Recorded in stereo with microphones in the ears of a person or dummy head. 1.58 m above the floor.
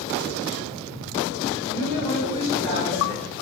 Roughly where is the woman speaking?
Right.